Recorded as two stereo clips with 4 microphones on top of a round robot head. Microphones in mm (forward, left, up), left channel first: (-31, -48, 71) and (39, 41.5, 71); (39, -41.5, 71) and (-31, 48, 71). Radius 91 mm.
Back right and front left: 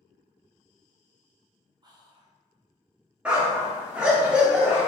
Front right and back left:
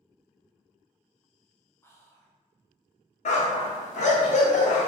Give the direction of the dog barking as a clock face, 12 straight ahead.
1 o'clock.